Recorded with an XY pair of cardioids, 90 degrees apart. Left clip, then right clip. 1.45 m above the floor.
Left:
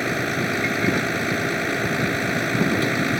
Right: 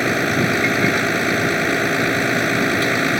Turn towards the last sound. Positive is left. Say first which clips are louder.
# right 5 dB
turn(degrees=-35)